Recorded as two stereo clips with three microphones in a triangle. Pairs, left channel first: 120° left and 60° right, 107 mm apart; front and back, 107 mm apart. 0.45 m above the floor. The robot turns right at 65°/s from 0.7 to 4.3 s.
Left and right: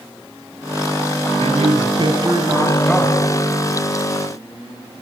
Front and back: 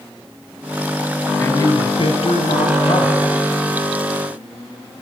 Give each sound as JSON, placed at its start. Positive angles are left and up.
{"t": 1.4, "sound": "a man speaking", "azimuth_deg": -70, "distance_m": 3.0}